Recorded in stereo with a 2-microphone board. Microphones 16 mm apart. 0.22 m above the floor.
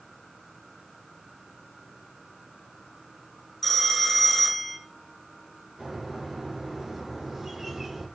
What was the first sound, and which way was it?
A phone ringing, 10° left (ahead or behind).